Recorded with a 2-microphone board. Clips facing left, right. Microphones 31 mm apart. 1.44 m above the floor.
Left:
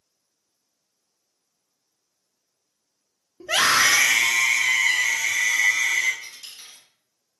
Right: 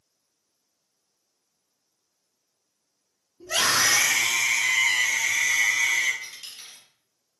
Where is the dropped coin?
30° right (ahead or behind), 1.6 m.